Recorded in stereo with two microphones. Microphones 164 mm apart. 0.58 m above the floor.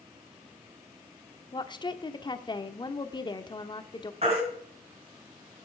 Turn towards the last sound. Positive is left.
turn(degrees=-40)  # may be behind; listen again after turning